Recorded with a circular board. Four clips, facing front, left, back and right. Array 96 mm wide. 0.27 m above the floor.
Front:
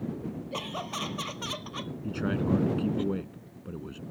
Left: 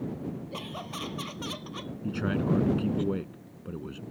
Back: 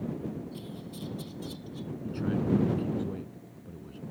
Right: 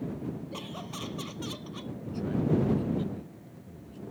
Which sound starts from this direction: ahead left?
A man speaking, at 2.0 s.